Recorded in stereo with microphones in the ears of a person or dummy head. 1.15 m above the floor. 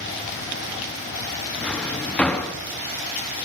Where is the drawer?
5° left (ahead or behind), 0.7 m.